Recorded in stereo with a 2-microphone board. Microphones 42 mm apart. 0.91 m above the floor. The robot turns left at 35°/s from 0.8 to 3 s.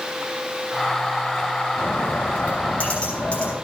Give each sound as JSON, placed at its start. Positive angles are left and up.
{"t": 1.8, "sound": "a bird", "azimuth_deg": 70, "distance_m": 5.0}